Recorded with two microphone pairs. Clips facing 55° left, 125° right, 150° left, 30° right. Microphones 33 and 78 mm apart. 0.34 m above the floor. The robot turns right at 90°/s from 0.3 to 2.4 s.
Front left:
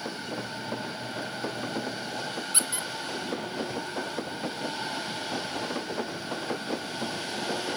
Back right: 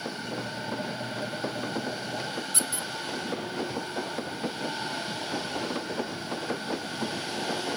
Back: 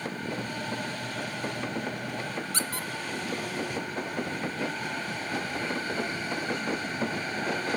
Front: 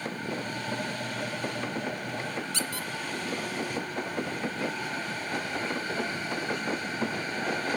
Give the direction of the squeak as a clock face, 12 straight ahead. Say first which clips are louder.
Front left 1 dB, back 1 dB; 8 o'clock.